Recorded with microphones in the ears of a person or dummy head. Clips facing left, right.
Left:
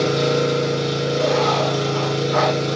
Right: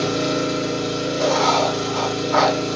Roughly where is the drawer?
No drawer in this recording.